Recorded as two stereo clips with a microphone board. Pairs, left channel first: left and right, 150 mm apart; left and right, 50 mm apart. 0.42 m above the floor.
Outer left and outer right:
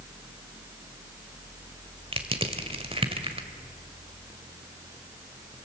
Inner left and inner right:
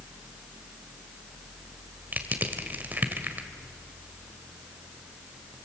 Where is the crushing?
35° right (ahead or behind), 1.7 m.